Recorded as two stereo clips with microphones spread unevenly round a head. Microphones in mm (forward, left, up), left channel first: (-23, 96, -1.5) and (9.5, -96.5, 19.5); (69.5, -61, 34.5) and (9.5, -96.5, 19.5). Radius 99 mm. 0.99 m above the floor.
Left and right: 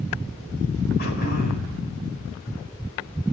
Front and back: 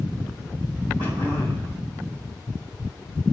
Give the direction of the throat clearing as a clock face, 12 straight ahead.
7 o'clock.